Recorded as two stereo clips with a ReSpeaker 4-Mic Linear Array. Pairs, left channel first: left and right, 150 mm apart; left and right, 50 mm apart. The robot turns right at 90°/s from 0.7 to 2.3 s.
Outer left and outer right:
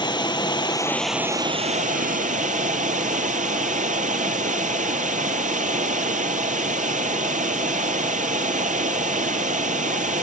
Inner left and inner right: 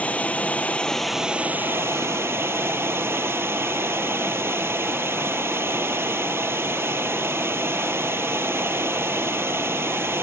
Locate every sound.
0.0 s running water: 145° left, 0.9 m; by 10.2 s 70° right, 0.9 m